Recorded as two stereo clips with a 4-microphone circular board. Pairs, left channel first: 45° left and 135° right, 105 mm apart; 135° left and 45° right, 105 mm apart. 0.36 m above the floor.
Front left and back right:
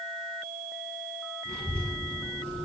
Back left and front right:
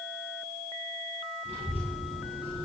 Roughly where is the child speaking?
Ahead right.